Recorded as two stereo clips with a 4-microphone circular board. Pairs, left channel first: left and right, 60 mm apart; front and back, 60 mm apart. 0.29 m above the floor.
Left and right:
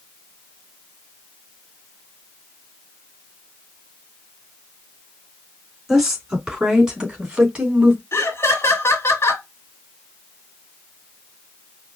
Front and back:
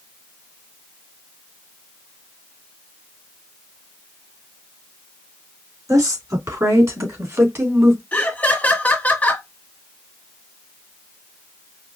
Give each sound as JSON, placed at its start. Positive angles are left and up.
{"t": 5.9, "sound": "a woman speaking", "azimuth_deg": -175, "distance_m": 3.5}
{"t": 8.1, "sound": "laughter", "azimuth_deg": 55, "distance_m": 1.7}